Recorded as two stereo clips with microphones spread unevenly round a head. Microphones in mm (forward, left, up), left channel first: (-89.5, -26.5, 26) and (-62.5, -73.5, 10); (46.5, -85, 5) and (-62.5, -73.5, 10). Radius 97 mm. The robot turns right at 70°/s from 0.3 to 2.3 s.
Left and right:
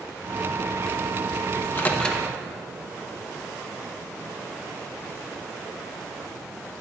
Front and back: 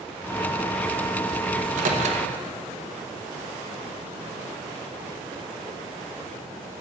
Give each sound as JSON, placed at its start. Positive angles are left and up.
{"t": 1.6, "sound": "a microwave", "azimuth_deg": 160, "distance_m": 0.9}